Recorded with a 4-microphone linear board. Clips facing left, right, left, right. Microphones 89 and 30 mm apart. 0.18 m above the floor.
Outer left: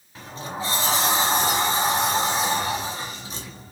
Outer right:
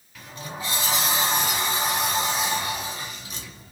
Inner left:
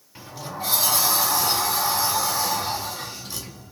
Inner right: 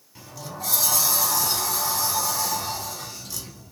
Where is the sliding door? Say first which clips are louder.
Outer left 4 dB, inner left 3 dB; 30° left (ahead or behind), 1.2 m.